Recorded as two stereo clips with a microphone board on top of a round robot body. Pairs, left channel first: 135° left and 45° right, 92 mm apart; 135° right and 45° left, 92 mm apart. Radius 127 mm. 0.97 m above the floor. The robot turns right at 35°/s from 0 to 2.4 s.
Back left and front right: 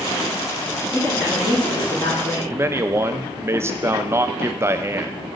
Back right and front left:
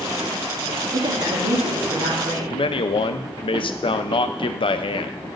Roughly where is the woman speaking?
Ahead left.